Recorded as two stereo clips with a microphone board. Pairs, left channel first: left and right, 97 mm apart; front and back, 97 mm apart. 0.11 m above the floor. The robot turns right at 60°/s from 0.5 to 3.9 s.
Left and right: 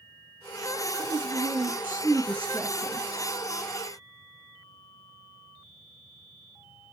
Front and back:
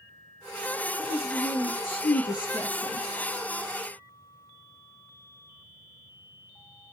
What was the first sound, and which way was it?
A woman speaking, 100° right.